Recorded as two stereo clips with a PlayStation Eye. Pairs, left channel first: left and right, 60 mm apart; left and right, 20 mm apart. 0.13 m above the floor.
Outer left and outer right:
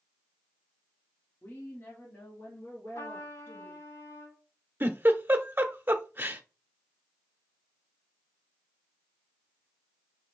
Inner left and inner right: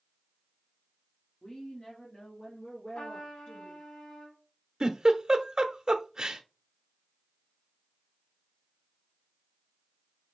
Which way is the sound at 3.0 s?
65° left (ahead or behind).